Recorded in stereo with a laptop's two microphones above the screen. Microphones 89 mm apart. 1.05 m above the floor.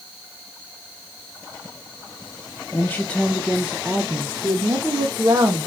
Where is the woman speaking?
25° left (ahead or behind), 0.7 m; by 5.7 s 45° right (ahead or behind), 1.4 m.